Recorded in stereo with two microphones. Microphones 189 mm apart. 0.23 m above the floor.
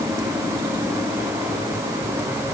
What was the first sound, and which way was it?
Only background noise.